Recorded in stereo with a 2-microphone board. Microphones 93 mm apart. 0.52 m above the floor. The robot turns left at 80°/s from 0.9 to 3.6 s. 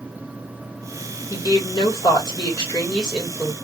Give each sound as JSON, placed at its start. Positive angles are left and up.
{"t": 1.3, "sound": "a woman speaking", "azimuth_deg": 145, "distance_m": 2.0}